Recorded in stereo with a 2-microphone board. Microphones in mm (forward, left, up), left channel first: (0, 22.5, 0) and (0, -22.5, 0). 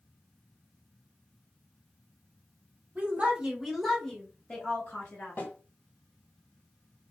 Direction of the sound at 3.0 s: 35° right (ahead or behind).